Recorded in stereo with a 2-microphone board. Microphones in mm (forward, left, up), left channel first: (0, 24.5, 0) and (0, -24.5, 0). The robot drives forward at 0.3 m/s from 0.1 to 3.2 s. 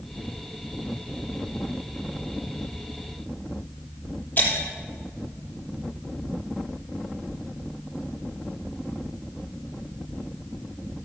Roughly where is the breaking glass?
Left.